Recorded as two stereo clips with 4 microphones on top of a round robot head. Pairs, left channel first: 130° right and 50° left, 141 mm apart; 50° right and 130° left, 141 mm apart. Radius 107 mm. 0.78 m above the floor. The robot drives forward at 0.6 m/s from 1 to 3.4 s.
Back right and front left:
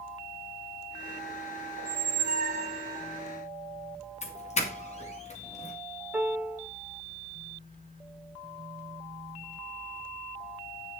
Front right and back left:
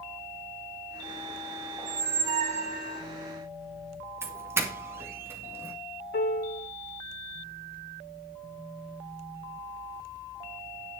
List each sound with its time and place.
1.8 s a squeak: 60° left, 1.0 m; by 3.0 s 110° left, 1.0 m
4.2 s a doorbell: 160° right, 2.5 m
6.1 s a piano: 30° right, 1.3 m